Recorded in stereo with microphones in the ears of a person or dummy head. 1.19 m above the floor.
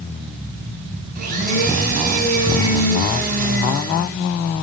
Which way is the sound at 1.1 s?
50° right (ahead or behind).